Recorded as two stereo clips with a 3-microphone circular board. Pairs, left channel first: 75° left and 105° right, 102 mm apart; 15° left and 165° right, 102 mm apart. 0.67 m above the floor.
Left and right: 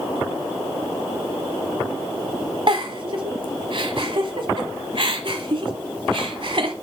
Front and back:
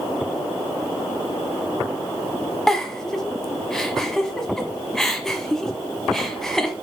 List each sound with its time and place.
2.7 s a giggle: 70° right, 1.0 m